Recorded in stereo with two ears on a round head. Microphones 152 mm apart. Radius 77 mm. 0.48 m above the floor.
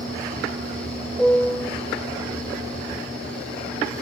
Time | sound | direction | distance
1.2 | a piano | centre (ahead or behind) | 0.9 m